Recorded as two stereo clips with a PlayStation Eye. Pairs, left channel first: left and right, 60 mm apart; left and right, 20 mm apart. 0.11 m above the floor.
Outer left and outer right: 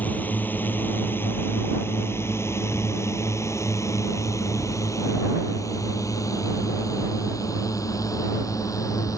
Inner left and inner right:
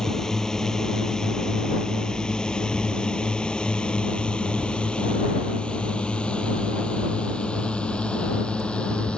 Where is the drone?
25° left (ahead or behind); by 9.2 s 65° left (ahead or behind).